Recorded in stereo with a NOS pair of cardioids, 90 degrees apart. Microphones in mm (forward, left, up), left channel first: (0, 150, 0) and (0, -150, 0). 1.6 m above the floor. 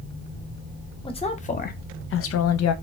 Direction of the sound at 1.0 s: 20° left.